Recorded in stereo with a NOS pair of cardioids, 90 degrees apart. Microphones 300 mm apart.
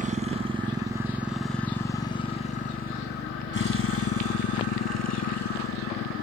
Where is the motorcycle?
25° right; by 6.2 s 70° left.